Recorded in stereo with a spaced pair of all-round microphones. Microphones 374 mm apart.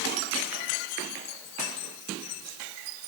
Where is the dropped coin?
I don't hear a dropped coin.